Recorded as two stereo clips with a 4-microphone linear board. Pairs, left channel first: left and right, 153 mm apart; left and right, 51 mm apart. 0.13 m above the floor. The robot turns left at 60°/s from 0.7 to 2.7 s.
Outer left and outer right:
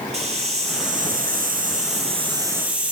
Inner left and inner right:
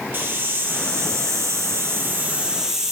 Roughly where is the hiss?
Ahead right.